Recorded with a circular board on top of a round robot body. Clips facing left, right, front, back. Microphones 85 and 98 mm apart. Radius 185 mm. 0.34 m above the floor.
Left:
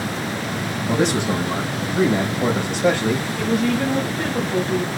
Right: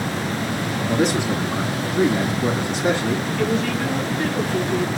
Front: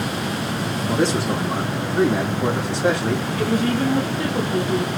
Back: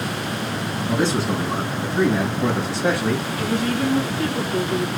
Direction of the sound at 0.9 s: 75° left.